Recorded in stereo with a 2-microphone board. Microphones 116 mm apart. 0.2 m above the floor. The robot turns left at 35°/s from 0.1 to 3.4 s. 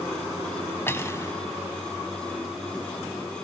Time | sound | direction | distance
0.9 | cutlery clinking | 20° left (ahead or behind) | 0.6 m